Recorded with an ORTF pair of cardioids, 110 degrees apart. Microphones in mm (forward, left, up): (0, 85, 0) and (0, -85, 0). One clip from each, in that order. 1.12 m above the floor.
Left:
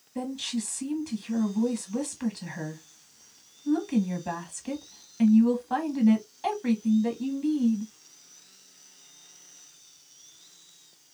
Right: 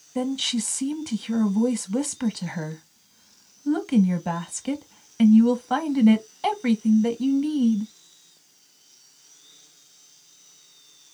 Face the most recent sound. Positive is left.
turn(degrees=-40)